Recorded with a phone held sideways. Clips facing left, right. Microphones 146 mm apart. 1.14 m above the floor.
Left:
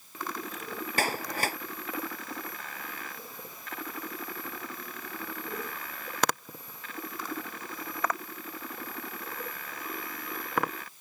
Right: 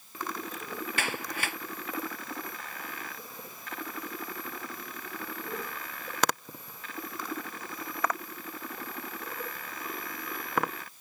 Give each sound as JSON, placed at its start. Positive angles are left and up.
{"t": 1.0, "sound": "a clap", "side_deg": 40}